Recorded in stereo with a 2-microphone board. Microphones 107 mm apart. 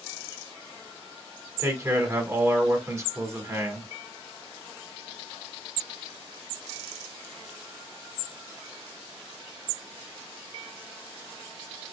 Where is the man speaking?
25° right (ahead or behind), 1.3 m.